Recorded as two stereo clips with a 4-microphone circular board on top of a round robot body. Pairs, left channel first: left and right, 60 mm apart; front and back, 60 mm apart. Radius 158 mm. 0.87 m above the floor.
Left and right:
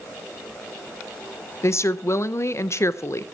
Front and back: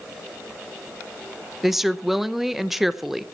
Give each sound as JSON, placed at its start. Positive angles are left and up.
{"t": 1.6, "sound": "a woman speaking", "azimuth_deg": 95, "distance_m": 1.1}